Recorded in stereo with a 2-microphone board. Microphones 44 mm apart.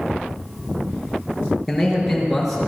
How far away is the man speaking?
About 4.5 m.